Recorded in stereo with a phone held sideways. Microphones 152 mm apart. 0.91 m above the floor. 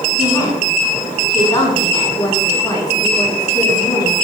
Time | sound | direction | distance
0.2 | a woman speaking | 25° left (ahead or behind) | 8.5 m